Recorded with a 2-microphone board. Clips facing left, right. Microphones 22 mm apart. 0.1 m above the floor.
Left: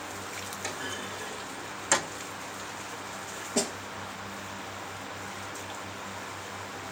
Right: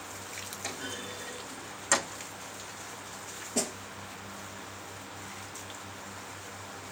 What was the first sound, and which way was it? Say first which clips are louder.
A clunk: left 2 dB; 5° left (ahead or behind).